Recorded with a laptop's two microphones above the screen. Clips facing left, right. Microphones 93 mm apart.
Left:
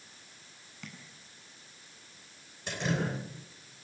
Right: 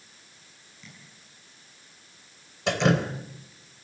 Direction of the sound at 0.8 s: 70° left (ahead or behind).